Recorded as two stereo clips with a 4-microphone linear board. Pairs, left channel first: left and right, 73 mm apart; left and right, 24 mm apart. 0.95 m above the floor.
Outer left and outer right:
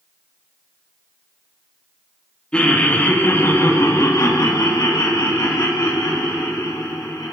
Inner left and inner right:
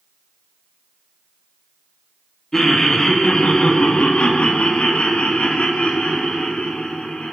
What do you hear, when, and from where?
2.5 s laughter: 15° left (ahead or behind), 1.3 m; by 7.3 s 80° left, 2.5 m